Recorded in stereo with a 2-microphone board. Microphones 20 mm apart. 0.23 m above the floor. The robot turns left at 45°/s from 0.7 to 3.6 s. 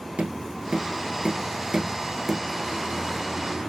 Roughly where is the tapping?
Right.